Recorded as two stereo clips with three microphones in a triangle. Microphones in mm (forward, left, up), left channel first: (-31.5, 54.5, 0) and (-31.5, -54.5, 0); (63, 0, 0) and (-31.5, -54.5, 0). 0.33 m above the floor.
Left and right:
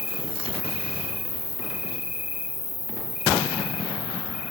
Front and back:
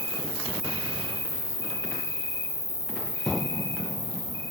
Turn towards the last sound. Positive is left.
turn(degrees=-165)